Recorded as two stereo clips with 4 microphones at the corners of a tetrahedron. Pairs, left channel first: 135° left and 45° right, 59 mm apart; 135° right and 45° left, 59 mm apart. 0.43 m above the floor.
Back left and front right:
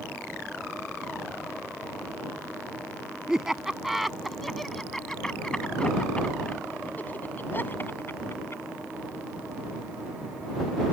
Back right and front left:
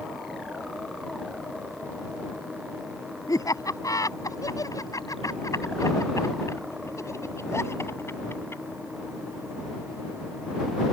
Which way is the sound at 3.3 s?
125° right.